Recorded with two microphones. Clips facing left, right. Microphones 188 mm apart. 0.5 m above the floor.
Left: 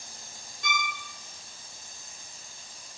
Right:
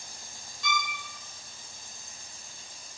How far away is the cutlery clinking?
No cutlery clinking in this recording.